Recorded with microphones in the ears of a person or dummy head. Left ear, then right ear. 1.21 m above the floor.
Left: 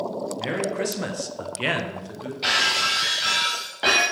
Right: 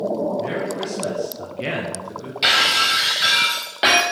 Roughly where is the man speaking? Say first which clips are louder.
Right 2 dB; left.